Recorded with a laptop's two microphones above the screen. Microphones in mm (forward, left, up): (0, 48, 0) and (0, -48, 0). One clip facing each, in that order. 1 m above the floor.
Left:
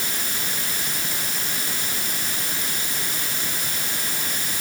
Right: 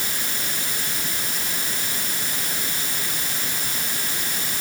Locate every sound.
Only background noise.